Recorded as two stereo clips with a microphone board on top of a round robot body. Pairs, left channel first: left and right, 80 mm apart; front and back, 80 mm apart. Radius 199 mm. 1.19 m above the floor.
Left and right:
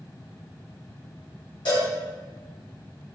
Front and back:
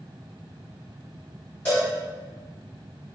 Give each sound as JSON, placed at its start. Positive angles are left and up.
{"t": 1.6, "sound": "a cowbell", "azimuth_deg": 75, "distance_m": 0.8}